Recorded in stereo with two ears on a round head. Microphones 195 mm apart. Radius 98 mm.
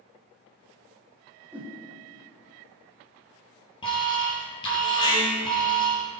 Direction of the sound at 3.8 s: 25° left (ahead or behind).